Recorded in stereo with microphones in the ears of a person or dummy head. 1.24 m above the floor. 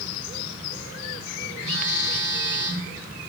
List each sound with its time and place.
1.6 s a phone buzzing: 30° right (ahead or behind), 3 m